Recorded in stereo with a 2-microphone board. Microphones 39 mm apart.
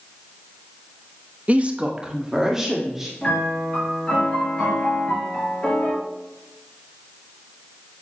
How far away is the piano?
About 4 m.